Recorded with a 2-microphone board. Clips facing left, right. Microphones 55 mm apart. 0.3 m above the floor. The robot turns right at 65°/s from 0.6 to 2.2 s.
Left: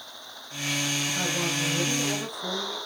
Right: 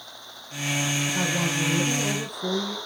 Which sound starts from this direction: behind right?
A woman speaking, at 1.1 s.